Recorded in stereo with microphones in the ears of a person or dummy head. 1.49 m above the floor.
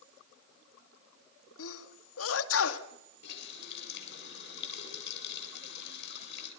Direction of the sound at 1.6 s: 80° left.